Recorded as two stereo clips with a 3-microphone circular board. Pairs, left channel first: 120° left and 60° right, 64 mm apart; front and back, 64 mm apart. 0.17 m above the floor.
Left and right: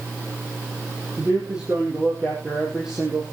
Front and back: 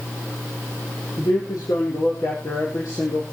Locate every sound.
1.2 s a man speaking: 15° left, 6 m; by 3.3 s 25° left, 5 m